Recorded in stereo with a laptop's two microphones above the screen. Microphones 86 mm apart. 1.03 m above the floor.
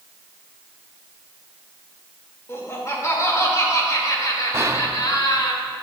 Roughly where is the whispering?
Right.